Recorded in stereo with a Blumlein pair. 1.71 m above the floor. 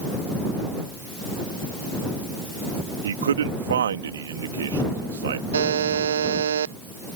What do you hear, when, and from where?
3.0 s a man speaking: 65° right
5.5 s a buzzer: 65° right